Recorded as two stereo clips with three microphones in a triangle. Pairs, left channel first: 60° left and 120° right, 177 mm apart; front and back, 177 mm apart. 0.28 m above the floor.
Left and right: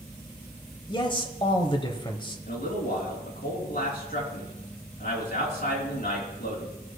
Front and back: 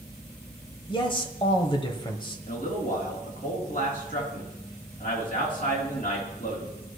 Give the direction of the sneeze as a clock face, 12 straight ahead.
I don't hear a sneeze.